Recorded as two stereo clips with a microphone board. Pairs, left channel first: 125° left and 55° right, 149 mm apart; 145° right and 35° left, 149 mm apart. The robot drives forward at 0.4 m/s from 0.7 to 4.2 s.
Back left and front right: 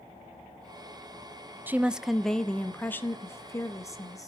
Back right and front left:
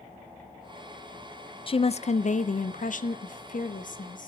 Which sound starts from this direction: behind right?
A woman speaking, at 1.7 s.